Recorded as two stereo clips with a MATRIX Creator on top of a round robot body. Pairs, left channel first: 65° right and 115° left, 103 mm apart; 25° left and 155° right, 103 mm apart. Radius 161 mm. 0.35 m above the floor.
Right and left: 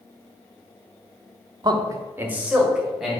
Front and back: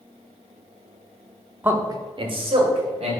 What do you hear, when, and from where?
1.6 s a man speaking: 135° left, 1.0 m; by 3.2 s 155° right, 2.5 m